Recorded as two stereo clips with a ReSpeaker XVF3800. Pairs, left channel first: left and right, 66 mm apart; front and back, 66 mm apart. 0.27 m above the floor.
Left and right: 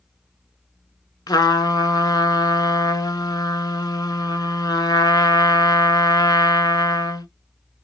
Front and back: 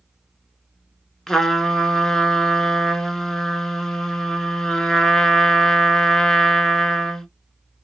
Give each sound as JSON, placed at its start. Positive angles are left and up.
{"t": 1.3, "sound": "a trumpet", "azimuth_deg": 85, "distance_m": 0.7}